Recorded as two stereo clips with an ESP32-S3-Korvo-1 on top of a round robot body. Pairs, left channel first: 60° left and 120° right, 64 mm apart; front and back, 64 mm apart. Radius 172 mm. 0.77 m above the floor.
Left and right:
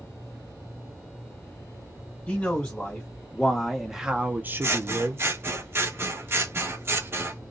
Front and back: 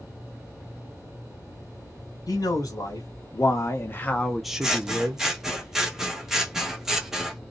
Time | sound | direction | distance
2.3 | a man speaking | 5° right | 1.3 m
4.6 | scissors | 100° right | 1.0 m